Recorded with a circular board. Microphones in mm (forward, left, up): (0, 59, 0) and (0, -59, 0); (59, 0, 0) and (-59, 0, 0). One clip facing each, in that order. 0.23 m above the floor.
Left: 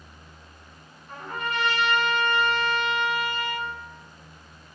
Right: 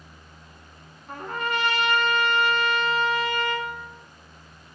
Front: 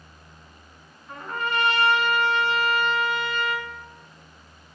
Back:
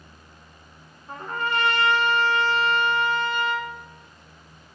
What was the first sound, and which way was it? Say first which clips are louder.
A trumpet: right 3 dB, back 1 dB; 120° right.